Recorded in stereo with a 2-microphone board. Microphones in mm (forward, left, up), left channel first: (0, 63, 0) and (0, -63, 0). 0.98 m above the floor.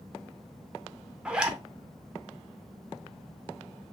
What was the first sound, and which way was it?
A zipper, 10° right (ahead or behind).